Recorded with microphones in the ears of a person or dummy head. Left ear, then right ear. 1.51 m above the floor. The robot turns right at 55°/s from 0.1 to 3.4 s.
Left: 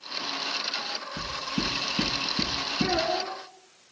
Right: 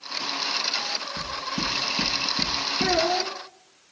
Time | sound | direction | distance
1.2 | knocking | 10° left (ahead or behind) | 8.5 m
2.8 | a child speaking | 150° right | 3 m